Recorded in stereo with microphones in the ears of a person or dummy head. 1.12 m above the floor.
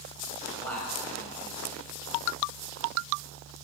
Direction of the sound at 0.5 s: 10° left (ahead or behind).